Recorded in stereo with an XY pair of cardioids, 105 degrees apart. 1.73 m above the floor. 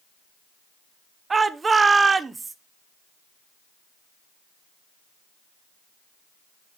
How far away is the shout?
About 1.1 m.